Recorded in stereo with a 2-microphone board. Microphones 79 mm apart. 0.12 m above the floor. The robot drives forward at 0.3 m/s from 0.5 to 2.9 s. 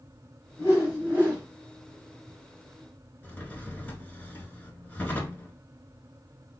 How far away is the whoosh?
About 2 m.